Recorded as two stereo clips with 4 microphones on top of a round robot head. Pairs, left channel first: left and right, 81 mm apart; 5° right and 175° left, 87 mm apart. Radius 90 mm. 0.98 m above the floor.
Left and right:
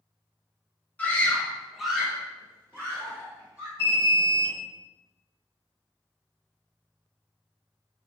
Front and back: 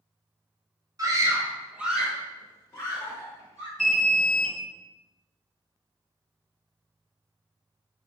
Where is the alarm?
80° left, 1.2 m.